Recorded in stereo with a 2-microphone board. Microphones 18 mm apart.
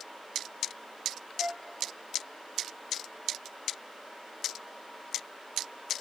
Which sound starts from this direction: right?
A flute, at 1.4 s.